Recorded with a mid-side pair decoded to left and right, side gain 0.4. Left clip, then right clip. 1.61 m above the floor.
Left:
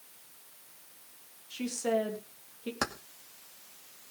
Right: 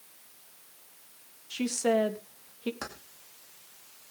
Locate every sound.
1.5 s a woman speaking: 50° right, 3 m
2.8 s keys jangling: 60° left, 2.5 m